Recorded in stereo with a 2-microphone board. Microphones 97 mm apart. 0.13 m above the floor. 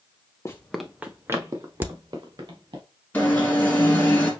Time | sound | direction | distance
0.5 | running footsteps | 30° left (ahead or behind) | 0.7 m
1.8 | a crack | 20° right (ahead or behind) | 0.6 m
3.1 | an alarm | 20° left (ahead or behind) | 2 m